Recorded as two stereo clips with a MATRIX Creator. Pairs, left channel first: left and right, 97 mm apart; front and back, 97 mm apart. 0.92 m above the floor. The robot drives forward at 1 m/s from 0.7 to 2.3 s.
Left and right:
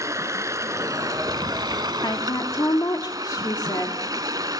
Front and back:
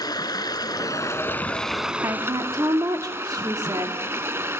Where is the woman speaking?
125° left, 2 m; by 4.0 s 135° left, 2 m.